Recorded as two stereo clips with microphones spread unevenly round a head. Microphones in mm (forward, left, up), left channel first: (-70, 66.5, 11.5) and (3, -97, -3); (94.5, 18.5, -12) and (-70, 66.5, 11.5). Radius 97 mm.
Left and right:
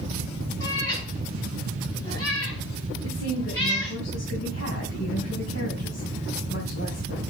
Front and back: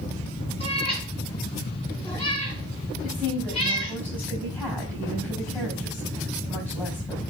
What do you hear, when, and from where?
0.6 s a cat meowing: 40° left, 4.5 m
3.0 s a woman speaking: 65° left, 5.5 m